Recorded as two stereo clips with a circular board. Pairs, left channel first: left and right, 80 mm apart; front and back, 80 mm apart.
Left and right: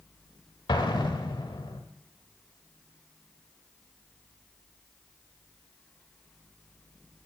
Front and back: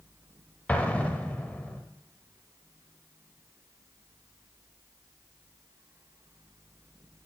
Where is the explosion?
70° left, 0.7 m.